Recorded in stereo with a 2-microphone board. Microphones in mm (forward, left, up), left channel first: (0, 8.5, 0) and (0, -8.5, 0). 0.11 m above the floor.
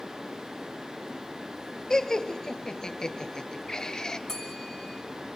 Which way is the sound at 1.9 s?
40° left (ahead or behind).